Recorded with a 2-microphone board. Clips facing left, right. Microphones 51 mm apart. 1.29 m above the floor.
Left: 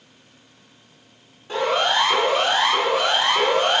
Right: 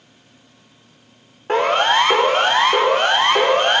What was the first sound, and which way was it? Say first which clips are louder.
A siren: right 5 dB; 55° right (ahead or behind).